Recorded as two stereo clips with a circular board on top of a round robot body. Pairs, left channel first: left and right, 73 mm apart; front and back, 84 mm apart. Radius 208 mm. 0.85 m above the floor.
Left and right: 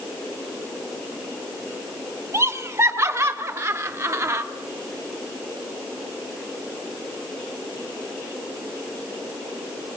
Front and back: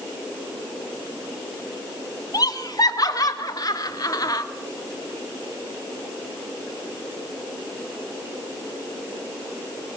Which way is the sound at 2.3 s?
45° right.